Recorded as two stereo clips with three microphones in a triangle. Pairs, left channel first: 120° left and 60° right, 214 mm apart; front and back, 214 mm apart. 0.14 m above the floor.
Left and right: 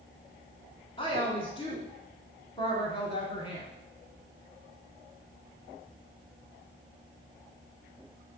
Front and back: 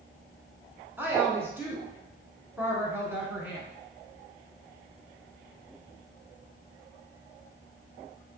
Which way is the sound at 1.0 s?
115° left.